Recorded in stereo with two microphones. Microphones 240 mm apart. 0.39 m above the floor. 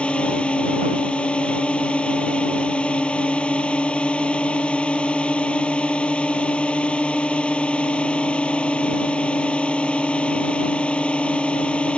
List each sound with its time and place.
0.0 s a drone: 5° left (ahead or behind)